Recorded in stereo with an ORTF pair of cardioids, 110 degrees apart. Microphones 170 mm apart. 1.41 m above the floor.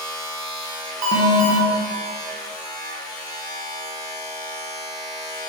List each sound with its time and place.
0.0 s a machine running: 25° left, 1.5 m
1.0 s an alarm: 50° right, 1.6 m